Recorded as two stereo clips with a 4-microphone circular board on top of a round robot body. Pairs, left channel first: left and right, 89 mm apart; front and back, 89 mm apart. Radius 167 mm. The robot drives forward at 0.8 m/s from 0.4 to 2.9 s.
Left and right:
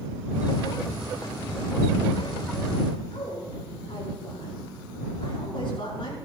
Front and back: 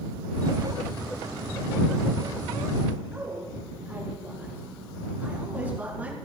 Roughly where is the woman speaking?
Left.